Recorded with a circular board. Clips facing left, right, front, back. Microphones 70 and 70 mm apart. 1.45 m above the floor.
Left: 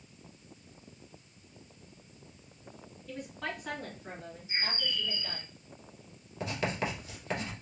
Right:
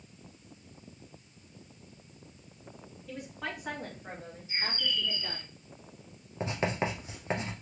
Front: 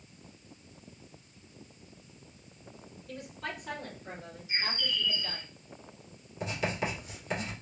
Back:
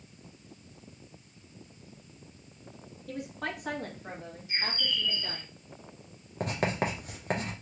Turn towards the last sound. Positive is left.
turn(degrees=-150)